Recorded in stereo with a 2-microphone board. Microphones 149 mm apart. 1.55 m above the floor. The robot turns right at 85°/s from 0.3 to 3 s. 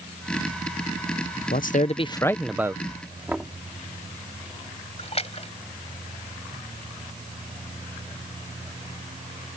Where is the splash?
45° left (ahead or behind).